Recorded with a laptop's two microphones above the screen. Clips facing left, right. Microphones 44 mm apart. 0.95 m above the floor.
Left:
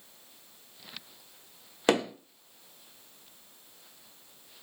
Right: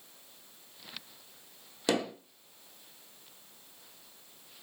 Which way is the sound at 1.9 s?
45° left (ahead or behind).